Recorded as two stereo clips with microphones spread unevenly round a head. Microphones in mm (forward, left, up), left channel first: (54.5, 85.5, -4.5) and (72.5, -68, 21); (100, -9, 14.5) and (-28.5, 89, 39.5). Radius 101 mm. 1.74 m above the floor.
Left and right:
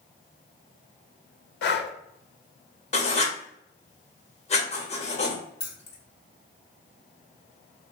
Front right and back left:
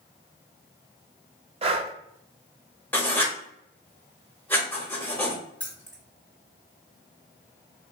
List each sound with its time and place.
1.6 s breathing: 85° left, 0.5 m
2.9 s writing: 45° left, 1.0 m
5.6 s keys jangling: 50° left, 0.9 m